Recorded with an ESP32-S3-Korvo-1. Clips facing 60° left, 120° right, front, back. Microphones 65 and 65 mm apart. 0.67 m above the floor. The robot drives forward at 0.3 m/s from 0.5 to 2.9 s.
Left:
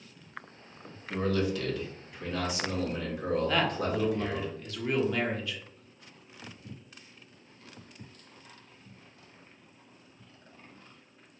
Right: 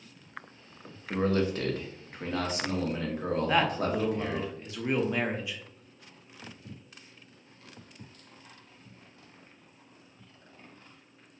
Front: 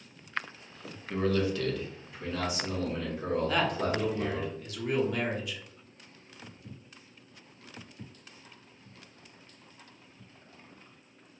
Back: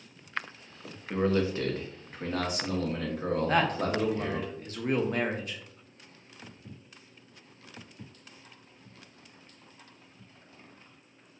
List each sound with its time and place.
1.1 s a man speaking: 125° right, 0.6 m; by 4.5 s 160° right, 0.9 m
3.5 s a man speaking: 175° left, 0.6 m